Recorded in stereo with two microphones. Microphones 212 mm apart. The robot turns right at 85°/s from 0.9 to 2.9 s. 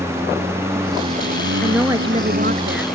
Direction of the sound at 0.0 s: 170° right.